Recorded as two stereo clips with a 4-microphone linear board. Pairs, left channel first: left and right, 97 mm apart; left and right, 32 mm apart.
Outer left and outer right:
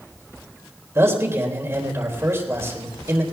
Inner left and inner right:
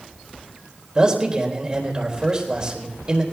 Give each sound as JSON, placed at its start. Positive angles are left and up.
{"t": 0.9, "sound": "a man speaking", "side_deg": -25, "distance_m": 4.0}